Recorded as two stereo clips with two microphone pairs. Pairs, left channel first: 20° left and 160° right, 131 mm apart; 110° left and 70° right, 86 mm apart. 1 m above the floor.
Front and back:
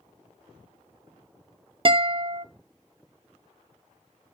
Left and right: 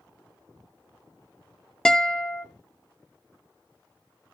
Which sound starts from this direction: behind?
A guitar, at 1.9 s.